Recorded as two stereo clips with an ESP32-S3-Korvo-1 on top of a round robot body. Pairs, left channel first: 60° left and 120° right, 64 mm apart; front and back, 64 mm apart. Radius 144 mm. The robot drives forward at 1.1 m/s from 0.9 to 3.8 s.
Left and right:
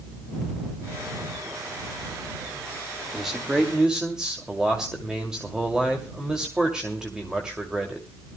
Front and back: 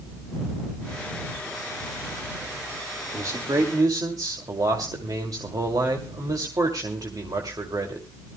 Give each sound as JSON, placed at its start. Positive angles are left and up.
{"t": 3.1, "sound": "a man speaking", "azimuth_deg": 150, "distance_m": 1.7}